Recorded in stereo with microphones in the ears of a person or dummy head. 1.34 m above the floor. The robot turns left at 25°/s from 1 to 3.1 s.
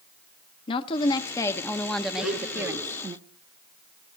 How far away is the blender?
About 3 m.